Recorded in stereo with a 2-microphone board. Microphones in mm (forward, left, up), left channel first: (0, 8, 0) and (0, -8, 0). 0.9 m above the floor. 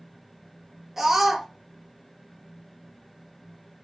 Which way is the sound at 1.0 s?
25° right (ahead or behind).